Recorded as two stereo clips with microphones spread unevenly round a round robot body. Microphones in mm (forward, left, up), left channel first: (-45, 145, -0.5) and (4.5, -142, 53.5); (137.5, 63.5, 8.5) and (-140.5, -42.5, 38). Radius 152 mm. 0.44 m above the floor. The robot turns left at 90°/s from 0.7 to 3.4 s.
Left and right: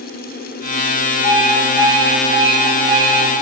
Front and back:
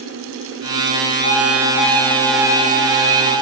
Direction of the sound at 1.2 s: 55° left.